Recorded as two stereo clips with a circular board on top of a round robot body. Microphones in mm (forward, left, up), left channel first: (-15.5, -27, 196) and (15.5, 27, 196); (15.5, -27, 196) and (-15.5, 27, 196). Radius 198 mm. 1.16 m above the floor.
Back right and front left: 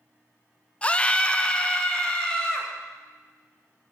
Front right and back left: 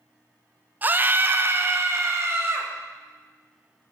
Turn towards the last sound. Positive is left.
turn(degrees=165)